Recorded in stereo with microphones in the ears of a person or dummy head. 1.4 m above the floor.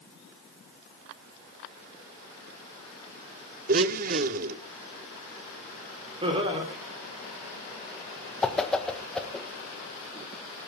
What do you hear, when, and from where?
3.7 s a blender: 45° right (ahead or behind), 0.8 m
6.2 s laughter: 30° right (ahead or behind), 4 m
8.4 s a whoosh: 5° left (ahead or behind), 1.4 m